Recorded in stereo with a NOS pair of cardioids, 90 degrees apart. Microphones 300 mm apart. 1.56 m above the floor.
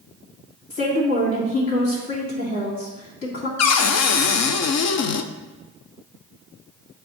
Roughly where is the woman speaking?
Ahead left.